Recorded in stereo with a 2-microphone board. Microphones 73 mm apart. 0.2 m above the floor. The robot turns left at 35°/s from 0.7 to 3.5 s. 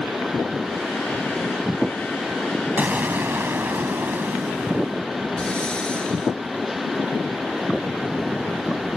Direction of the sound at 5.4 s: 15° left (ahead or behind).